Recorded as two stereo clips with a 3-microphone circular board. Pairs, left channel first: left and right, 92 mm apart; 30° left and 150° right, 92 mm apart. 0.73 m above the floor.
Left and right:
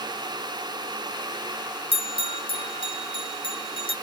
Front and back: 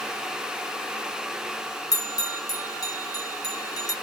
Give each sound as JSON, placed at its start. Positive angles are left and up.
{"t": 1.9, "sound": "a bell", "azimuth_deg": 75, "distance_m": 0.7}